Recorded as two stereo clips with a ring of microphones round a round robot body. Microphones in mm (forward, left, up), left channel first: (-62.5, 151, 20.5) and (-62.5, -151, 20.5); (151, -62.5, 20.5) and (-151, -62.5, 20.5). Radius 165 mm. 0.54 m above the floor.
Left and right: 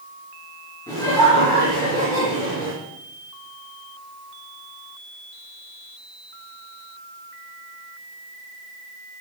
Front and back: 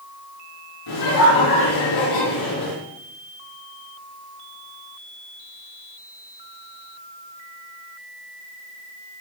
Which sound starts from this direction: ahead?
Laughter, at 0.9 s.